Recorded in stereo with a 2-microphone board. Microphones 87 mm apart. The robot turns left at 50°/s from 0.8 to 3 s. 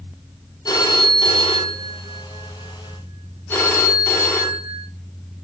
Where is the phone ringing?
130° left, 0.6 m; by 4.9 s 20° left, 0.6 m.